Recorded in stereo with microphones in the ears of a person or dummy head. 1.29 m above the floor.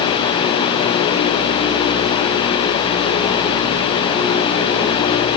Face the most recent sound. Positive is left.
No sound to turn to.